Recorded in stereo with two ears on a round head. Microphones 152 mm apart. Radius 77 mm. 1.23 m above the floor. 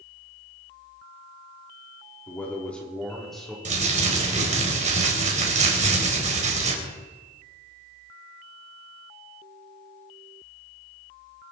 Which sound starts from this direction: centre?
A man speaking, at 2.3 s.